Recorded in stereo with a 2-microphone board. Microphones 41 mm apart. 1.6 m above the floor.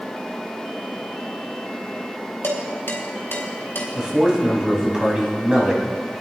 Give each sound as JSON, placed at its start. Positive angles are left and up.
{"t": 2.4, "sound": "dishes clattering", "side_deg": 70, "distance_m": 3.5}
{"t": 4.0, "sound": "a man speaking", "side_deg": -20, "distance_m": 2.5}